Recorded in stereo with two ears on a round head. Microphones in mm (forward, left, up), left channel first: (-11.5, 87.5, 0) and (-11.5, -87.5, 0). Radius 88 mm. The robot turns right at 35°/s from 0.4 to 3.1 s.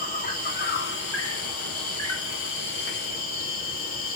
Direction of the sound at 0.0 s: 35° left.